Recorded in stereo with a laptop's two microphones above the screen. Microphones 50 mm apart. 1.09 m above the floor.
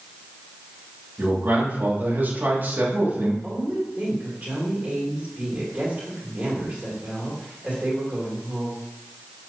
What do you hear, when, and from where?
1.2 s a man speaking: 40° right (ahead or behind), 2.5 m
3.4 s a woman speaking: 30° right (ahead or behind), 3 m